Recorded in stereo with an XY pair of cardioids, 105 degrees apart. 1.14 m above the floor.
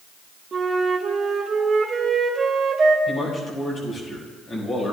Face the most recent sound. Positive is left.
turn(degrees=45)